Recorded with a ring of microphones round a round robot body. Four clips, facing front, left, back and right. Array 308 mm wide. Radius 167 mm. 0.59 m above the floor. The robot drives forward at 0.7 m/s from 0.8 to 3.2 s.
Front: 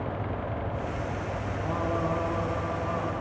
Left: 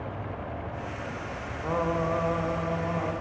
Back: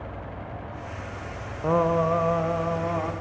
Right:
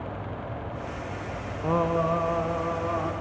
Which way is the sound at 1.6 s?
165° right.